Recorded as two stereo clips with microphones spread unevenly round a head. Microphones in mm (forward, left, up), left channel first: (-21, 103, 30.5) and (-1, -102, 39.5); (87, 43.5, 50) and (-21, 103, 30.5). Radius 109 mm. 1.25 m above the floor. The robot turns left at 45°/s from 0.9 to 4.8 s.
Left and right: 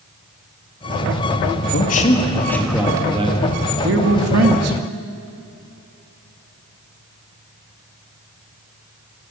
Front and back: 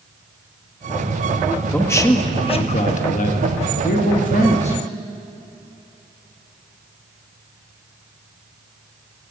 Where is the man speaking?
50° left, 2 m; by 4.8 s 90° right, 2 m.